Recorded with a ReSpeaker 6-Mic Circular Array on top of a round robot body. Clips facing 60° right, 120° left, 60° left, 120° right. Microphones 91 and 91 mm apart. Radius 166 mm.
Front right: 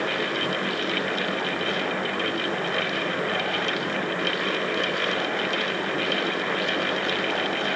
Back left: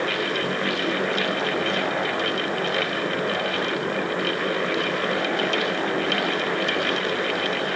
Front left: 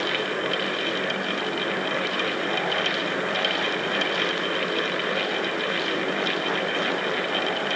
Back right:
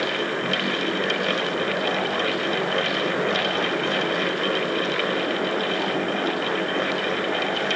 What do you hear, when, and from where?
Only background noise.